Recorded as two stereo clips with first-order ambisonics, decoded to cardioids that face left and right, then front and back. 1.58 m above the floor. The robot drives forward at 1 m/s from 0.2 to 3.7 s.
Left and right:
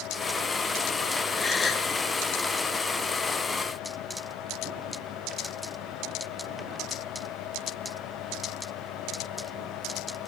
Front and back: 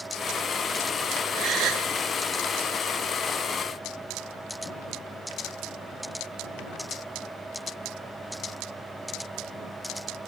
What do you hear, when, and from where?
1.4 s a gasp: 160° left, 1.2 m; by 1.9 s 165° left, 1.6 m